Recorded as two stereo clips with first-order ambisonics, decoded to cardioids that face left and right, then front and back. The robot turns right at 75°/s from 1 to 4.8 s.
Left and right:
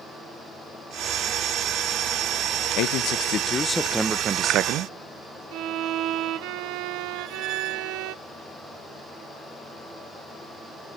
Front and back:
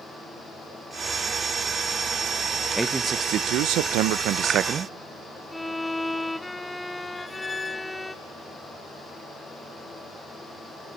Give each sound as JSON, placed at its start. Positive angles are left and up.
{"t": 2.8, "sound": "a man speaking", "azimuth_deg": 90, "distance_m": 0.7}
{"t": 5.5, "sound": "a violin", "azimuth_deg": -80, "distance_m": 0.8}
{"t": 7.2, "sound": "a squeak", "azimuth_deg": -75, "distance_m": 0.6}